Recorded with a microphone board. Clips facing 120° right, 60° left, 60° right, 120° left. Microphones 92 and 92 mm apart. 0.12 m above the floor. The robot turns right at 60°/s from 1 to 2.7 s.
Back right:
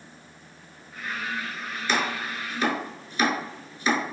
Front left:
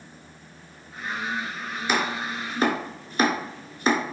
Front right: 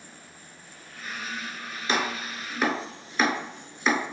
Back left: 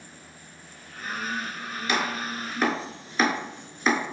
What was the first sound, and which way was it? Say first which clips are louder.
Chopping: front left 1 dB, even; 15° right.